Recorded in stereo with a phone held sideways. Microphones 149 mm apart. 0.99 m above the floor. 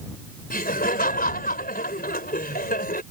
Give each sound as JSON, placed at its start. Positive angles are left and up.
{"t": 0.5, "sound": "laughter", "side_deg": 85}